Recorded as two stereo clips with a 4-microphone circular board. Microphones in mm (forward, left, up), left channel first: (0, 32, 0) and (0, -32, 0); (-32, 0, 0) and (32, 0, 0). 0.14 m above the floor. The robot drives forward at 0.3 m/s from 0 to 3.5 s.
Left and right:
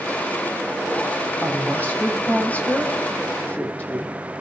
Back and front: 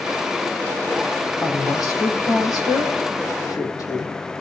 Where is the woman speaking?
155° left, 6 m; by 4.1 s 160° left, 6.5 m.